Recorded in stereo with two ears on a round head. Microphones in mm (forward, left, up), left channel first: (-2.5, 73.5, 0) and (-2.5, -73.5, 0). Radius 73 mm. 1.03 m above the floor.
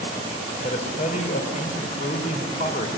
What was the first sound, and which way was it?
A man speaking, 45° left (ahead or behind).